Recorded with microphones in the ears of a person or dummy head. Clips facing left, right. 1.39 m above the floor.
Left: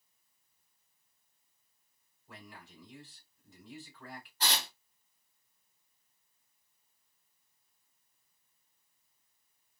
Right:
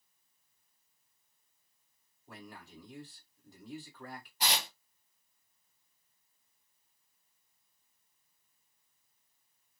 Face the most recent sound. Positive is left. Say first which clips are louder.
# right 1 dB
turn(degrees=-10)  # may be behind; listen again after turning